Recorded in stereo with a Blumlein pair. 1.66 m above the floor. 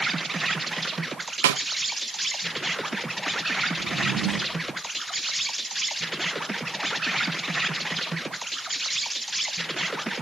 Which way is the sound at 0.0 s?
10° right.